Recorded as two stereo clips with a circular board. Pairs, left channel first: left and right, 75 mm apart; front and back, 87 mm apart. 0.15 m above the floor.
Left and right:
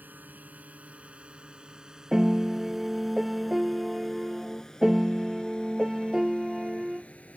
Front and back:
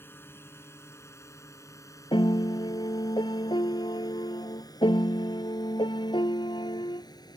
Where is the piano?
5° right.